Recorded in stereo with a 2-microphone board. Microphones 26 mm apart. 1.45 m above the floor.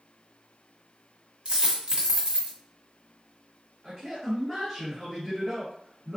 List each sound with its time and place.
1.4 s a dropped coin: 45° right (ahead or behind), 1.7 m
3.8 s a man speaking: 5° right (ahead or behind), 1.7 m